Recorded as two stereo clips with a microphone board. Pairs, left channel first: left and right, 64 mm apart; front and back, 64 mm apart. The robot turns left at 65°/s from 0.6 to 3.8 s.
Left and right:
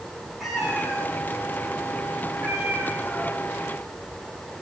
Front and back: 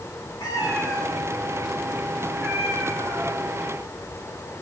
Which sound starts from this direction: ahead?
A cat meowing, at 0.4 s.